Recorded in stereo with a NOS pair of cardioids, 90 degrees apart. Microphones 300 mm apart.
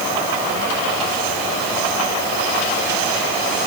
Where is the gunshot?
No gunshot in this recording.